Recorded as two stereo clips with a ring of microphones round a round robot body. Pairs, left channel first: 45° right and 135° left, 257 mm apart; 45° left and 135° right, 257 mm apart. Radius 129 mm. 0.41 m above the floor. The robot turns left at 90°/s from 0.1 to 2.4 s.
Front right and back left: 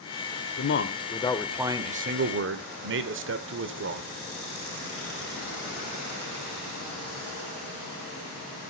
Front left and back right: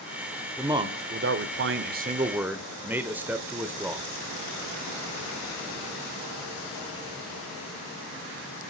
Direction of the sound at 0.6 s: 50° right.